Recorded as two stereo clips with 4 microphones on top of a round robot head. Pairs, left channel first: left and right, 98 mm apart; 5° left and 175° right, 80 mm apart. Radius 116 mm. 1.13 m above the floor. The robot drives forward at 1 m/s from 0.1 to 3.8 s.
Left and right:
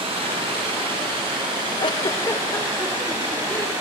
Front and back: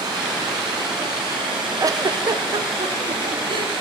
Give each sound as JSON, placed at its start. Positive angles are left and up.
{"t": 0.0, "sound": "running water", "azimuth_deg": -130, "distance_m": 5.0}
{"t": 1.8, "sound": "a giggle", "azimuth_deg": 135, "distance_m": 0.7}